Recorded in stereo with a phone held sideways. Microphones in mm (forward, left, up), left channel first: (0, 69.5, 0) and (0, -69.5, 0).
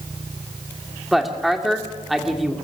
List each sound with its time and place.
1.1 s a woman speaking: centre (ahead or behind), 2.5 m